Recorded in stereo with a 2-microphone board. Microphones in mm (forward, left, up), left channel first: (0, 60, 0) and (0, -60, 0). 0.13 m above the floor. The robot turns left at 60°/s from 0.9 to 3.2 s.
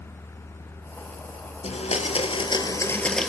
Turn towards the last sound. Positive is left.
turn(degrees=5)